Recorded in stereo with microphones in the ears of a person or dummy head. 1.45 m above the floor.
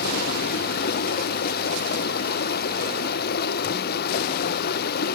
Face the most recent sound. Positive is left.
turn(degrees=55)  # may be behind; listen again after turning